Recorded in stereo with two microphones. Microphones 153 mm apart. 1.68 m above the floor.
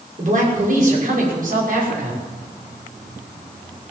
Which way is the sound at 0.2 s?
60° right (ahead or behind).